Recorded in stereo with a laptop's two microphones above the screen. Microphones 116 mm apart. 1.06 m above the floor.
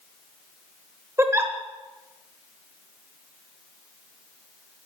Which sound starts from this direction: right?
A giggle, at 1.2 s.